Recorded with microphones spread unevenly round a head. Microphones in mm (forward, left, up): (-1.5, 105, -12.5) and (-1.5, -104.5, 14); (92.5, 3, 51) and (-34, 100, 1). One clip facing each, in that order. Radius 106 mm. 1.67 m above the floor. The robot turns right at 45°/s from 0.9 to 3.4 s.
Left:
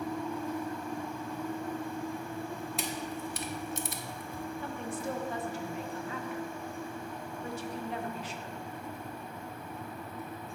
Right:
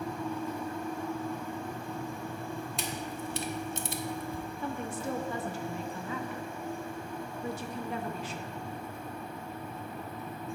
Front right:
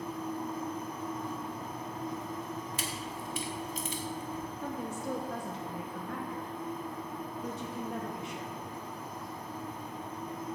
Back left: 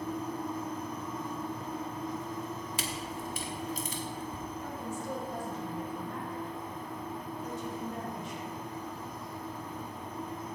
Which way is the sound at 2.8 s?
Straight behind.